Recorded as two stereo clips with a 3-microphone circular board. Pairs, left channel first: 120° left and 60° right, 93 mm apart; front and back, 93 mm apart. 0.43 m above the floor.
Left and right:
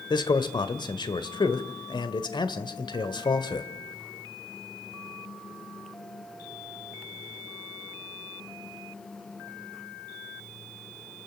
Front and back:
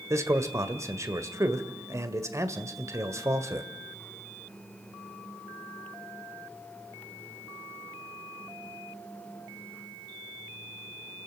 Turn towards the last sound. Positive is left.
turn(degrees=130)